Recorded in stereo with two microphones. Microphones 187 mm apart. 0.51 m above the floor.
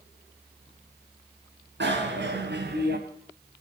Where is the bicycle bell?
75° right (ahead or behind), 3.5 m; by 3.0 s 60° right (ahead or behind), 2.5 m.